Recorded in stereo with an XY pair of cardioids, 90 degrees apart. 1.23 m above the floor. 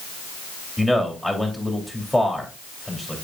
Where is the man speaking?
5° left, 3 m.